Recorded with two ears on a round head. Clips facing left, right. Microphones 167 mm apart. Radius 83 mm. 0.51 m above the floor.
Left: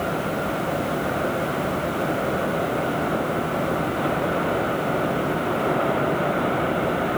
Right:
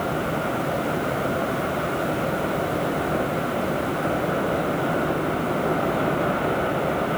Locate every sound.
Only background noise.